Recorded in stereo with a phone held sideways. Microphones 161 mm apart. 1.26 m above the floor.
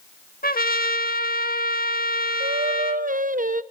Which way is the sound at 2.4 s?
55° right (ahead or behind).